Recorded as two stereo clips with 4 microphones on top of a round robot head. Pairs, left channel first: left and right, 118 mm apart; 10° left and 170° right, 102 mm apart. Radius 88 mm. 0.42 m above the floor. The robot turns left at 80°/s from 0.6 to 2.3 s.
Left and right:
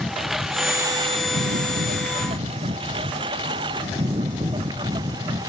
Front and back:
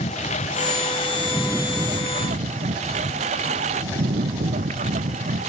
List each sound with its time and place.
0.0 s a lawn mower: straight ahead; by 5.5 s 155° right